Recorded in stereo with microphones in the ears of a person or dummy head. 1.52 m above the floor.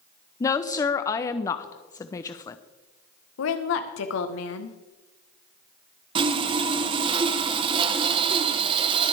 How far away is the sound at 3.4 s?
About 1.3 m.